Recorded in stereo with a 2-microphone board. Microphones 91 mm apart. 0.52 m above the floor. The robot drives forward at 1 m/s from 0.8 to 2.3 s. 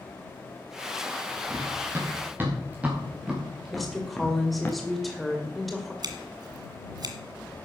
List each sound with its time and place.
1.5 s running footsteps: 35° right (ahead or behind), 5 m; by 4.7 s 20° left (ahead or behind), 3.5 m
3.7 s a woman speaking: centre (ahead or behind), 2 m
6.0 s scissors: 50° right (ahead or behind), 1.7 m